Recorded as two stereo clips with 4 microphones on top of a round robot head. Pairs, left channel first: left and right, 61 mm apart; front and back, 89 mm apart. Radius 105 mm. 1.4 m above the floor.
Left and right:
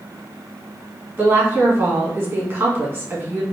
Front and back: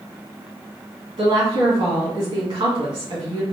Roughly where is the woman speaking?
Behind right.